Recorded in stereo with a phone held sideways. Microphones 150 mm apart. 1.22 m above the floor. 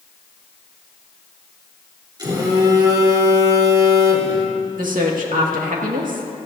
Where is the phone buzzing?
30° right (ahead or behind), 3.5 m.